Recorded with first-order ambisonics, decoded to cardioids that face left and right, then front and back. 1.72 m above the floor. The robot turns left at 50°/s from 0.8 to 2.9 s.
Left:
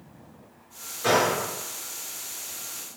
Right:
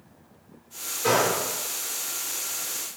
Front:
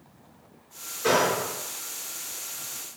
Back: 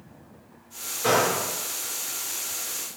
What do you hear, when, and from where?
1.0 s a gunshot: 160° left, 1.2 m; by 1.4 s 140° left, 1.2 m